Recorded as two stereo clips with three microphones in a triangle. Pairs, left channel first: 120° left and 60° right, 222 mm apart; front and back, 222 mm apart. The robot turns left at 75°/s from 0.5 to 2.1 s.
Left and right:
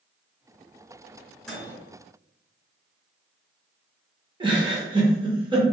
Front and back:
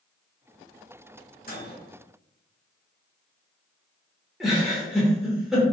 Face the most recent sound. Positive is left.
turn(degrees=-95)